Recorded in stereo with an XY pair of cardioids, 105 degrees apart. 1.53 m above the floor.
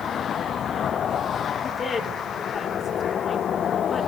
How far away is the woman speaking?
About 4 m.